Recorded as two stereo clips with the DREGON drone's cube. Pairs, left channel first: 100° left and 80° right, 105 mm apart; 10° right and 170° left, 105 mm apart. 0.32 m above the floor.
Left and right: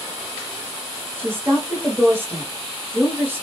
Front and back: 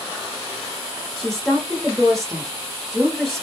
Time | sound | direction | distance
1.2 | a woman speaking | 95° right | 1.0 m